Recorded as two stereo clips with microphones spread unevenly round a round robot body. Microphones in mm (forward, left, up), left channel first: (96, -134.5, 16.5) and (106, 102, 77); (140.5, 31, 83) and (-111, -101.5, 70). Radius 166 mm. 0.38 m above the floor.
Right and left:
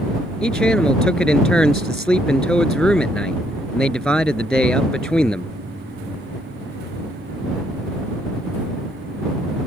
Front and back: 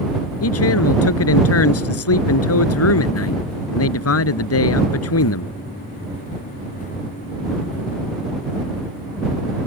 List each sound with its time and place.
0.4 s a man speaking: 5° right